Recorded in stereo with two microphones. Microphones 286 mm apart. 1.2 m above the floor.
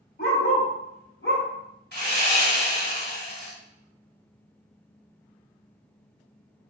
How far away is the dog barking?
About 1.0 m.